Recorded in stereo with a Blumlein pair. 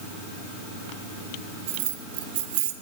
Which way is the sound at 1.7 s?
50° right.